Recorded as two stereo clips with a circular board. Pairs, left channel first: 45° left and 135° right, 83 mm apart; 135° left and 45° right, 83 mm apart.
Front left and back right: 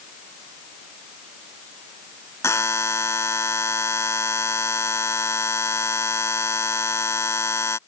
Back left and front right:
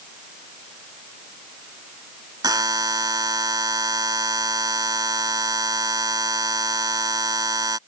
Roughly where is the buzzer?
Ahead.